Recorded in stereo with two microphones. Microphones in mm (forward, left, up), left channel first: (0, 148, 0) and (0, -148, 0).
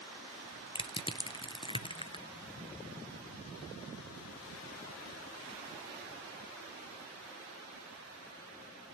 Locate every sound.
0.8 s crushing: 15° left (ahead or behind), 0.6 m